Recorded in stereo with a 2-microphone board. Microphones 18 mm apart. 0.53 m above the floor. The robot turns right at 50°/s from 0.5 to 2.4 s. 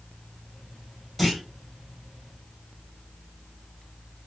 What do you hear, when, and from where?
1.2 s a clunk: 5° left (ahead or behind), 1.7 m; by 1.4 s 5° right (ahead or behind), 1.7 m